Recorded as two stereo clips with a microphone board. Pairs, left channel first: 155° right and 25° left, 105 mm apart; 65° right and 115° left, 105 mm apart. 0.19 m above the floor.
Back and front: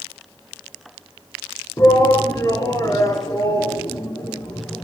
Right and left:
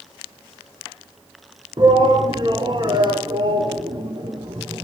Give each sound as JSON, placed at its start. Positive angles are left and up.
{"t": 1.8, "sound": "a shout", "azimuth_deg": 150, "distance_m": 2.0}